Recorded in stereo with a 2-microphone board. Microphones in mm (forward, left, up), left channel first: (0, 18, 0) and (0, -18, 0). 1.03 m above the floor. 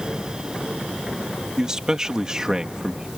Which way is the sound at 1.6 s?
20° right (ahead or behind).